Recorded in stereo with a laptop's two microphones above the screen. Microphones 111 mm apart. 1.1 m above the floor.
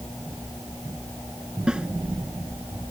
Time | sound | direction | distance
1.7 | a snare drum | 10° right (ahead or behind) | ?